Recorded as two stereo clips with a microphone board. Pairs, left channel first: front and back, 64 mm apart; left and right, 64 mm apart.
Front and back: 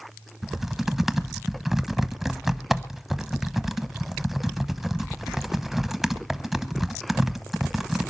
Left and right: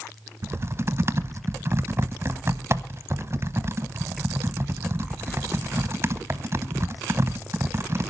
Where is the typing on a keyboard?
95° right, 0.8 m.